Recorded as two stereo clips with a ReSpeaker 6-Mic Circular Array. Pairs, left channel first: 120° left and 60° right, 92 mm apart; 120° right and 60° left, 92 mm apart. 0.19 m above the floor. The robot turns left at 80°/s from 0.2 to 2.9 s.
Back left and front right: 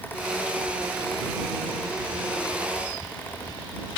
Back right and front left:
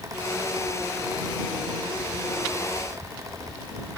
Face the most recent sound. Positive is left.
No sound to turn to.